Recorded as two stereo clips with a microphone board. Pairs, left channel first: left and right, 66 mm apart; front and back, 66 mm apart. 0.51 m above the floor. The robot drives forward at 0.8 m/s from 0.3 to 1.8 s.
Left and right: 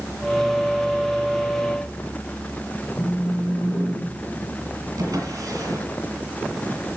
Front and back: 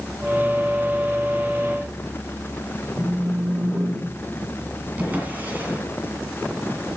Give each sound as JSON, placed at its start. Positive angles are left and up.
{"t": 3.0, "sound": "a phone buzzing", "azimuth_deg": 115, "distance_m": 1.9}
{"t": 5.0, "sound": "a drawer", "azimuth_deg": -115, "distance_m": 1.8}